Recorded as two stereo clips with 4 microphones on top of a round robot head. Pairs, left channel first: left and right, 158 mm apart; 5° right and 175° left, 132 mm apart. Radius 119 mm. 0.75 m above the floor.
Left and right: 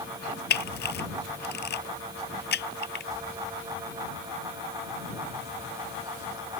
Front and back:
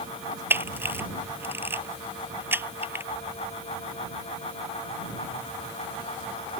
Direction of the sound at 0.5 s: 100° left.